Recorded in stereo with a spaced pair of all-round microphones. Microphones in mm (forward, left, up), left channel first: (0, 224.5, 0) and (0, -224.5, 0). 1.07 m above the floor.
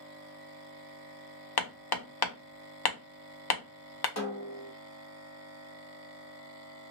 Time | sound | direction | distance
1.6 | hammering | 55° left (ahead or behind) | 0.6 m
4.2 | a snare drum | 35° left (ahead or behind) | 0.8 m